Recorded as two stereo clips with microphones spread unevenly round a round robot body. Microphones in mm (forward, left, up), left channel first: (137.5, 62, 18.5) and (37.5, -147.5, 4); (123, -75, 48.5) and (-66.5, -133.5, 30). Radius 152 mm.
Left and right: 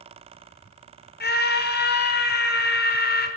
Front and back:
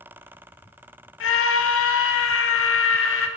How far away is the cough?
I don't hear a cough.